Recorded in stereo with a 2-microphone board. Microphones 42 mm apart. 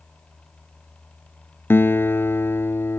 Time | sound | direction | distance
1.7 | a guitar | 65° left (ahead or behind) | ?